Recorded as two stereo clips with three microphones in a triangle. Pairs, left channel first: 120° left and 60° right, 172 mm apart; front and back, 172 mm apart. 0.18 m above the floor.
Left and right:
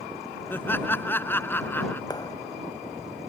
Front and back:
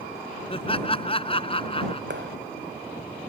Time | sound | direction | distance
0.5 | laughter | 45° left | ?
2.1 | a clap | 170° right | ?